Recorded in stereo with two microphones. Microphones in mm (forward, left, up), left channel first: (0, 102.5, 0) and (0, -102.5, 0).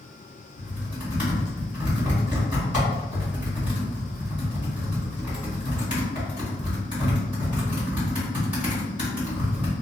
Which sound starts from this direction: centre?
Typing on a keyboard, at 0.6 s.